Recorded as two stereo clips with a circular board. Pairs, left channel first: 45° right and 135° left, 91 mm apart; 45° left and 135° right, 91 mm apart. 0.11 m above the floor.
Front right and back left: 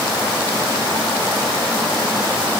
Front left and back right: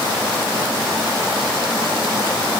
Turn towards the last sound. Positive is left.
No sound to turn to.